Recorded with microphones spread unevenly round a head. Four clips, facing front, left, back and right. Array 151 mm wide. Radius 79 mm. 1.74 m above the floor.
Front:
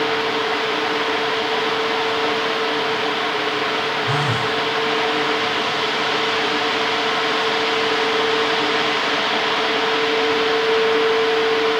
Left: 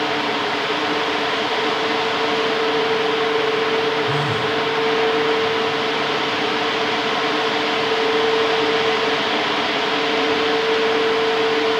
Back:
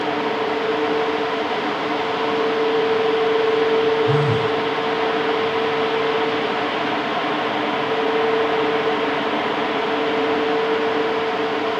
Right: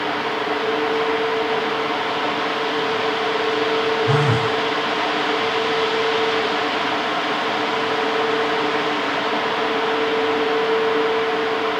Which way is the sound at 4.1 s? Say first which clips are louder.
Right 2 dB, back 3 dB; 65° right.